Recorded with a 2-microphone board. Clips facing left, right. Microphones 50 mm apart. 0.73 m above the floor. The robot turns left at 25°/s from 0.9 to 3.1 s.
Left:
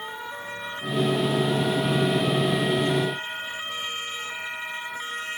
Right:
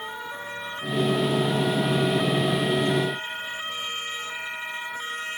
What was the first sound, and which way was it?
Only background noise.